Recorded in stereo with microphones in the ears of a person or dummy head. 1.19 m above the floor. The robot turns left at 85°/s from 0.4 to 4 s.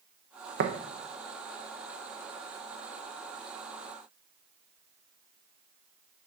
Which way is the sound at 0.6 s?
60° right (ahead or behind).